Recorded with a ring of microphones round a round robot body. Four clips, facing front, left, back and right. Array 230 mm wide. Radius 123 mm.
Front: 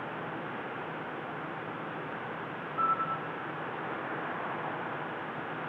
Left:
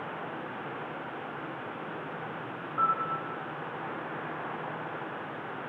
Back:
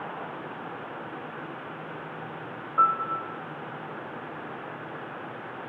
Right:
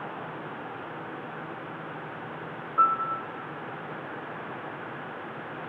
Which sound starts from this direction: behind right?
A piano, at 2.8 s.